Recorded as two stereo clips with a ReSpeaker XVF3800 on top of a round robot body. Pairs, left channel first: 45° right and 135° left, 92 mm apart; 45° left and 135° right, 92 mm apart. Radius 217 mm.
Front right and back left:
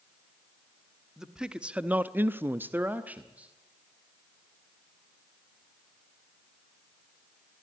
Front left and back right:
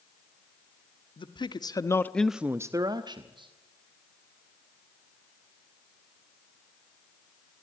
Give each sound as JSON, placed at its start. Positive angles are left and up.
{"t": 1.2, "sound": "a man speaking", "azimuth_deg": 50, "distance_m": 1.7}